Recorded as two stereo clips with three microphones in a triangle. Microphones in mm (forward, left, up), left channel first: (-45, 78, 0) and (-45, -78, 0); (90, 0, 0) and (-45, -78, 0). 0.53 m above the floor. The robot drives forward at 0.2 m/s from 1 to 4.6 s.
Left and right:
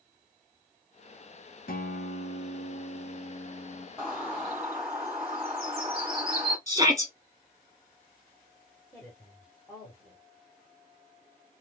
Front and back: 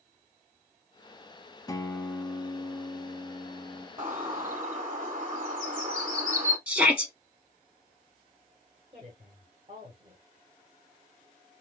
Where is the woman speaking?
175° left, 1.6 m.